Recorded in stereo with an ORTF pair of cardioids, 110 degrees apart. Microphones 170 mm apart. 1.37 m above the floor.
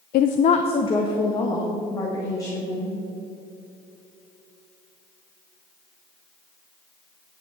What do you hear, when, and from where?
0.1 s a woman speaking: 65° left, 0.5 m; by 3.0 s 20° left, 3.5 m